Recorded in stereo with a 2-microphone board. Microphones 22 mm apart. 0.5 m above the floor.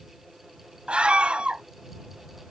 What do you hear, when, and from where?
0.9 s a scream: 50° right (ahead or behind)